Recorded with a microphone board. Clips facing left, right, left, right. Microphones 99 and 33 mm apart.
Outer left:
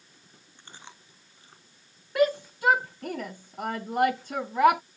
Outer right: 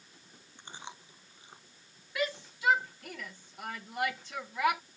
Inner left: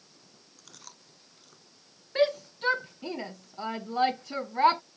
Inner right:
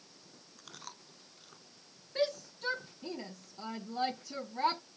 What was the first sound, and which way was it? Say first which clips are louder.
Chewing: outer right 3 dB, inner right 3 dB; 15° right (ahead or behind).